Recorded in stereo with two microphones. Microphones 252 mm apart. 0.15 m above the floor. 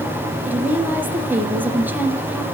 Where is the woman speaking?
5° right (ahead or behind), 2.5 m.